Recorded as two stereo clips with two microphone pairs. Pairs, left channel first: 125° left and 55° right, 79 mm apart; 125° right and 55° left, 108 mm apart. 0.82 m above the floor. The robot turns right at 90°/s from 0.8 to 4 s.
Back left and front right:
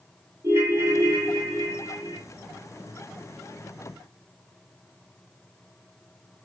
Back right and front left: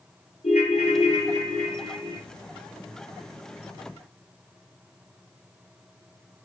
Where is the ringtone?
110° right, 1.0 m; by 2.2 s 20° left, 1.0 m.